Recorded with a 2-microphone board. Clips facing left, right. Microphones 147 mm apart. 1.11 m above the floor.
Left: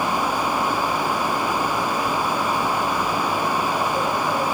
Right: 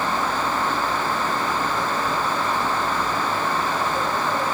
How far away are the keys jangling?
I don't hear keys jangling.